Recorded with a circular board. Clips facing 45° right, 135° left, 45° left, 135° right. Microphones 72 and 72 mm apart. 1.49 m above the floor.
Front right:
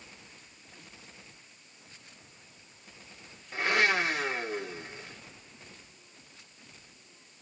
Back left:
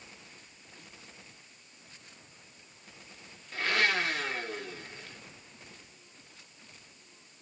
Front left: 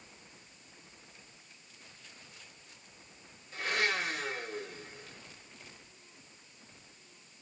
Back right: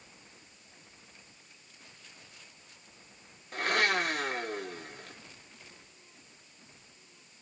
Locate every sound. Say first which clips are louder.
3.5 s a blender: front right 2 dB, back right 4 dB; 115° right, 1.5 m